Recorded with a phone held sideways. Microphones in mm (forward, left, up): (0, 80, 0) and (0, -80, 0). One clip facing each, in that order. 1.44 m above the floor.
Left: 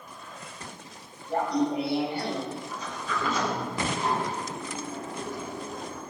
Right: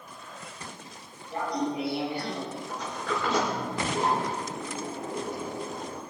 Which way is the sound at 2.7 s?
85° right.